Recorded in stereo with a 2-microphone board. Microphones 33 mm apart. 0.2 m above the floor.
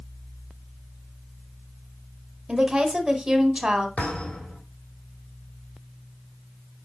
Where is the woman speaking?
25° right (ahead or behind), 1.1 m.